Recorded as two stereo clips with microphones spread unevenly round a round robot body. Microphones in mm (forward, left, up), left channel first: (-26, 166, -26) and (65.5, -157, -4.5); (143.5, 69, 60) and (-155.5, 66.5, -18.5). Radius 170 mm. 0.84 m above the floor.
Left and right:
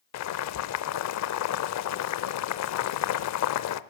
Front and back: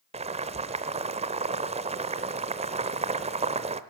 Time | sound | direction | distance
0.1 | boiling | 100° left | 0.6 m